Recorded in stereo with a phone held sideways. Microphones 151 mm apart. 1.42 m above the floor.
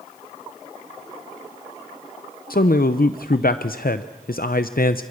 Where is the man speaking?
80° left, 0.7 m.